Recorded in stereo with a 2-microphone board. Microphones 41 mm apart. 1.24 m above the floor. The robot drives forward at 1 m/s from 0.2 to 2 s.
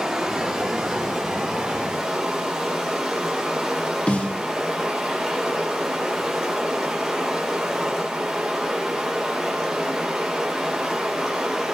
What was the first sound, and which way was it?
Running water, 15° right (ahead or behind).